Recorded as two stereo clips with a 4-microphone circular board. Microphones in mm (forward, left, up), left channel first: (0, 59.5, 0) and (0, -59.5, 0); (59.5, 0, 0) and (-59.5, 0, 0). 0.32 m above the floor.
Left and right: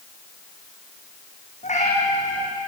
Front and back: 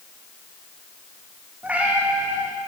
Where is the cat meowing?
100° left, 5.5 m.